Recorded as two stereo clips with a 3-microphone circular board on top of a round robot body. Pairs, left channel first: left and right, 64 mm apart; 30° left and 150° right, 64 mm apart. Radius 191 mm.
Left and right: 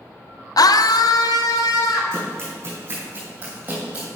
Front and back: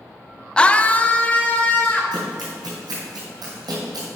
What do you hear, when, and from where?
0.6 s a scream: 105° left, 0.5 m; by 2.0 s 95° left, 2 m
2.1 s running footsteps: 140° right, 3.5 m; by 4.1 s 150° right, 2 m